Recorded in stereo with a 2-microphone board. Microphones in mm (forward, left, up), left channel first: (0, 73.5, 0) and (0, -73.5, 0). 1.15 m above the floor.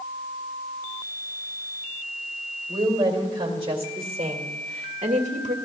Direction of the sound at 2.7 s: 30° right (ahead or behind).